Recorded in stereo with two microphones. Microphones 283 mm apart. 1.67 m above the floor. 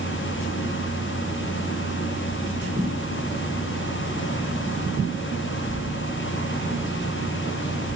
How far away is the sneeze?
No sneeze in this recording.